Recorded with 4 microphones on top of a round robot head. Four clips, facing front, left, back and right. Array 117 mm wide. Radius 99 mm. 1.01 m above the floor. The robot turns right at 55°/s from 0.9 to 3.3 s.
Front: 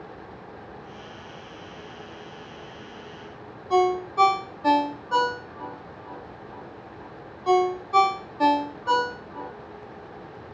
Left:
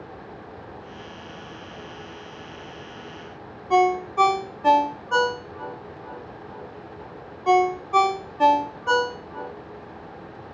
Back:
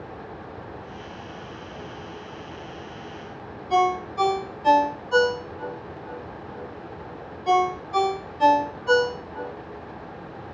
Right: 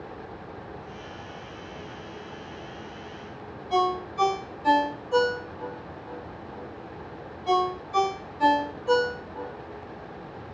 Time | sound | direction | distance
3.7 | a ringtone | 60° left | 0.6 m